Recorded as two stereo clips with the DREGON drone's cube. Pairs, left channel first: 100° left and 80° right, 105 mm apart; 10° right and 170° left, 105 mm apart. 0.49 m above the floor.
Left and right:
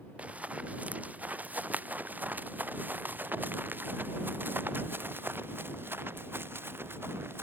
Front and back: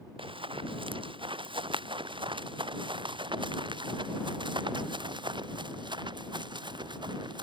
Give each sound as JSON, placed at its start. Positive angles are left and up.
{"t": 0.2, "sound": "running footsteps", "azimuth_deg": -155}